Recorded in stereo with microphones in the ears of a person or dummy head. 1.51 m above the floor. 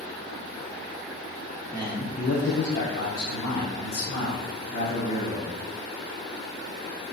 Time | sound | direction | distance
1.7 | a man speaking | 10° left (ahead or behind) | 0.6 m